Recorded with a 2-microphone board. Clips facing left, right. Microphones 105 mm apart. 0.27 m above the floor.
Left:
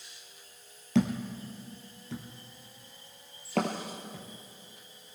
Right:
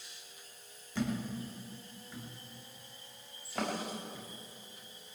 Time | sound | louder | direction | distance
0.9 | a thud | left 7 dB | 80° left | 2.5 m